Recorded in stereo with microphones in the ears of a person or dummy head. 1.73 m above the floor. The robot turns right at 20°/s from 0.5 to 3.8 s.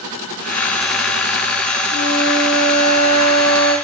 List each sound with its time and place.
1.9 s a flute: 60° left, 8.5 m; by 3.7 s 95° left, 8.5 m